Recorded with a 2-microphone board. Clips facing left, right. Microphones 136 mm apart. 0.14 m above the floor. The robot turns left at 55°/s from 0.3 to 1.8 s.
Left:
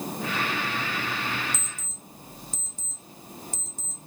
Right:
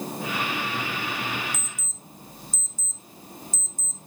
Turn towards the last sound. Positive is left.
turn(degrees=60)  # may be behind; listen again after turning